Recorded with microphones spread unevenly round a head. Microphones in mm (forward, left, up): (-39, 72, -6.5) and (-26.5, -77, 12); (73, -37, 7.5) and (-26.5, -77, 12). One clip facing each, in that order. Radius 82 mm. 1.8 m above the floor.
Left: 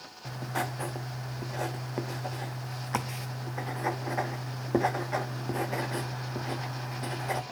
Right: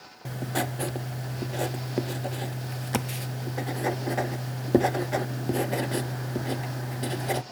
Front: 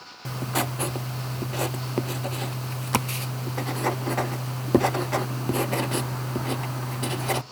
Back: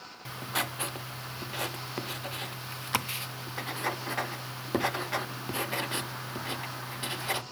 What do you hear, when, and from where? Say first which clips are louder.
0.2 s writing: right 4 dB, front 7 dB; 30° right, 0.5 m